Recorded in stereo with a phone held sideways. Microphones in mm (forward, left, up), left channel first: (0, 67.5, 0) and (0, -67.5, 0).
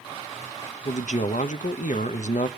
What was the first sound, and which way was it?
A man speaking, 65° left (ahead or behind).